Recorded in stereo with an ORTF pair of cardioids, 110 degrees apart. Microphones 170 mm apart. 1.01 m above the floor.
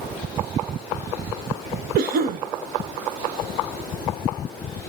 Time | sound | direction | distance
1.9 | a cough | 65° right | 0.8 m